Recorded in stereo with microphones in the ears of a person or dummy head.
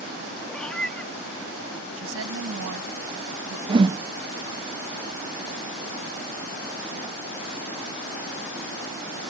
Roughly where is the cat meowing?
Centre.